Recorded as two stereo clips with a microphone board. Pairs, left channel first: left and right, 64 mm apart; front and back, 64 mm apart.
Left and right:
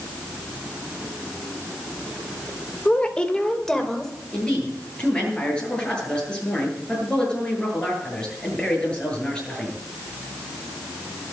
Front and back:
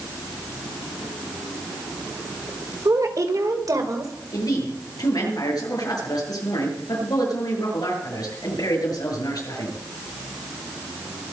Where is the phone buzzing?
I don't hear a phone buzzing.